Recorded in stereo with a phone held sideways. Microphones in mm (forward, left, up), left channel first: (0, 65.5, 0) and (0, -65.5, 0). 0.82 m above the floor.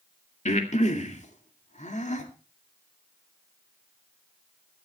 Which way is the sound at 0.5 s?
65° left (ahead or behind).